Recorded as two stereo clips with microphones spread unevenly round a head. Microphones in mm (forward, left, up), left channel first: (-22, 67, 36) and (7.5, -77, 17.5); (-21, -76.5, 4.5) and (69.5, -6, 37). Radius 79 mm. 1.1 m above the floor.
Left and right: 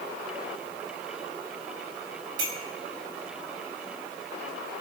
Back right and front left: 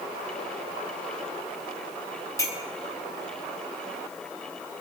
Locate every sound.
2.4 s a clink: 75° right, 5 m